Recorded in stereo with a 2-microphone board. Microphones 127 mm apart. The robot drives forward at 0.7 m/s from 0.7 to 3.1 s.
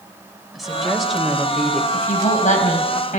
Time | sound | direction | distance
0.5 | a woman speaking | centre (ahead or behind) | 4 m
1.9 | a woman speaking | 75° left (ahead or behind) | 5 m